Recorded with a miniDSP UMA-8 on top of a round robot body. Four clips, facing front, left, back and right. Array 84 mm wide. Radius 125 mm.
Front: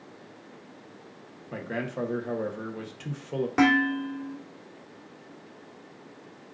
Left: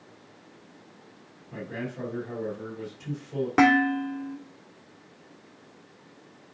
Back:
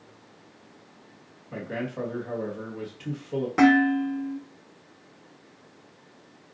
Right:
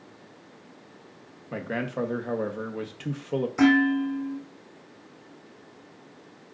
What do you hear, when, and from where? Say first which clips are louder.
1.5 s a man speaking: right 5 dB, even; 75° right, 1.2 m
3.6 s dishes clattering: even, back 4 dB; 85° left, 1.6 m